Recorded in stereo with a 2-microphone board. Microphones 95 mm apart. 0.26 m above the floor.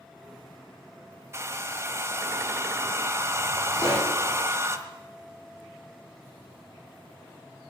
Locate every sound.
1.3 s a hair dryer: 30° right (ahead or behind), 1.0 m
3.8 s a pop: 35° left (ahead or behind), 7.5 m